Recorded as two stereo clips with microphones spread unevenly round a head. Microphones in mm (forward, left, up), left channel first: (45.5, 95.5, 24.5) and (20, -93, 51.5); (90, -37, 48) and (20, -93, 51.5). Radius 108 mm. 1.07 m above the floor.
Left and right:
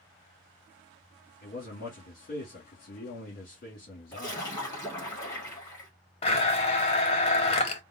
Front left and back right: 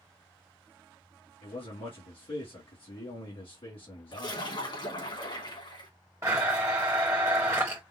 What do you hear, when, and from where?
1.4 s a man speaking: 45° left, 2.0 m
4.1 s a splash: 10° left, 3 m
6.2 s a blender: 145° left, 0.6 m